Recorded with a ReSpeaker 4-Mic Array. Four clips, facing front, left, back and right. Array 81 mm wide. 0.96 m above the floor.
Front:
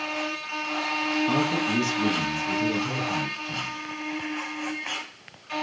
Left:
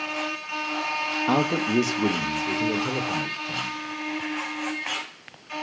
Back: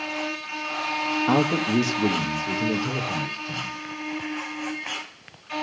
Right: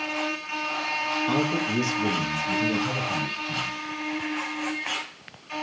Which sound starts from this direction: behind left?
A man speaking, at 1.3 s.